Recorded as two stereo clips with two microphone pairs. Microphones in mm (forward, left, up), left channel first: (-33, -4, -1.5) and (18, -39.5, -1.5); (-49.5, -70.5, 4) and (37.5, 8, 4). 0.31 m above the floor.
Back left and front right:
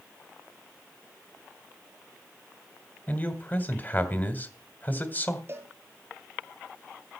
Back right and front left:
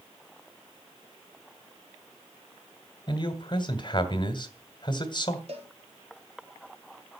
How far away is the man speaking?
About 2.0 m.